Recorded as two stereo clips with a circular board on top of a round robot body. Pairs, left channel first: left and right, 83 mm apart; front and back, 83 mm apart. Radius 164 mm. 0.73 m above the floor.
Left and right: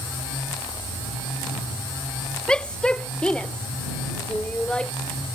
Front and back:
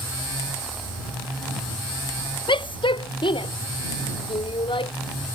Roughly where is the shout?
Ahead.